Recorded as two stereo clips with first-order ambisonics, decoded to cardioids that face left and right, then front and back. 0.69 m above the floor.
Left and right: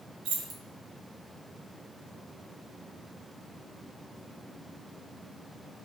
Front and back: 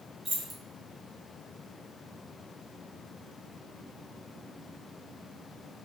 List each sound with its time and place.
0.2 s keys jangling: 105° right, 0.7 m